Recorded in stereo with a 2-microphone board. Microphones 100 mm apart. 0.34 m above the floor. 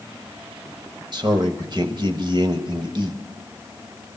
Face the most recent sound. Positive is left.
turn(degrees=-45)  # may be behind; listen again after turning